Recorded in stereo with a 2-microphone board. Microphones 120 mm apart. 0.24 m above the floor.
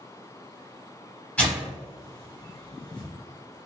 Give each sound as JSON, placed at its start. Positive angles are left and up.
{"t": 1.4, "sound": "tearing paper", "side_deg": 10, "distance_m": 1.0}